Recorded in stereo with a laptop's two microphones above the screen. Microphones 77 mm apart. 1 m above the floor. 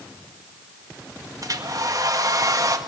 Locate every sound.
1.4 s a hair dryer: 55° right (ahead or behind), 1.7 m